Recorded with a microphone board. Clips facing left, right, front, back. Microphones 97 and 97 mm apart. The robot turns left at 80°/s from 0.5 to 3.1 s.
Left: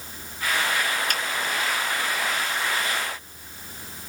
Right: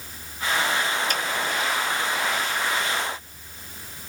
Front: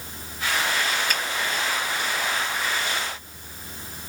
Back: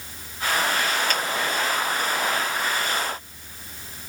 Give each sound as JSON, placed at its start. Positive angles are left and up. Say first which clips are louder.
{"t": 1.1, "sound": "a finger snap", "louder": "right 1 dB, back 2 dB", "azimuth_deg": 85, "distance_m": 1.5}